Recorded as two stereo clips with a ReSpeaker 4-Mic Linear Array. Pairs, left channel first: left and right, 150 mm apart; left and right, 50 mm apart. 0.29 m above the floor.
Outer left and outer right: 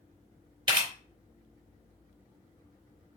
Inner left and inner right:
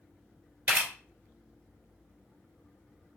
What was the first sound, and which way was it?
A camera shutter, 30° right (ahead or behind).